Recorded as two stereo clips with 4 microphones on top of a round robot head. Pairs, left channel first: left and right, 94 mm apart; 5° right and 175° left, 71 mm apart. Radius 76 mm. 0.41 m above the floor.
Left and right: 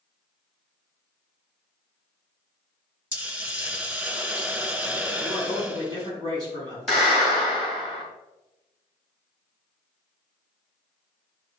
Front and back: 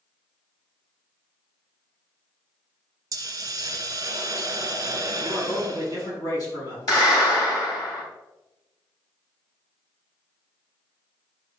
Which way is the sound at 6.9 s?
5° right.